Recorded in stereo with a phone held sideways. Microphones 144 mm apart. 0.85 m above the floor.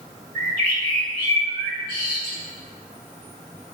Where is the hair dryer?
No hair dryer in this recording.